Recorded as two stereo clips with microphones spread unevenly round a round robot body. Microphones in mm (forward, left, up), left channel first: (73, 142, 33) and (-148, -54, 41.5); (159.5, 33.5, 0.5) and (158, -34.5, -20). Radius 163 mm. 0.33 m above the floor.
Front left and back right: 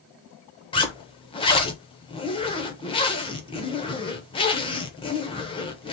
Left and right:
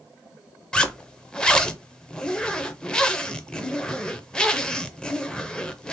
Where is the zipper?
10° right, 0.5 m.